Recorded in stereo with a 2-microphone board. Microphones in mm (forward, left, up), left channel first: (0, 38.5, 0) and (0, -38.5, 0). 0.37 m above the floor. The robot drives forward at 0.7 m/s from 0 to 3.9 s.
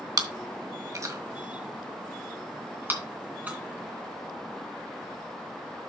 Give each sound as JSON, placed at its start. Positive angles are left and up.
{"t": 0.2, "sound": "chewing", "side_deg": -55, "distance_m": 1.3}